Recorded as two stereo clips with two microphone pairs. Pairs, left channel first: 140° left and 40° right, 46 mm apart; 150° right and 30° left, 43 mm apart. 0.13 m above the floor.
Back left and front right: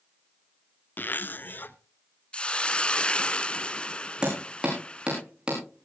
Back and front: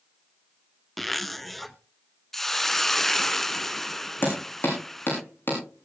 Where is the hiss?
140° left, 0.6 m.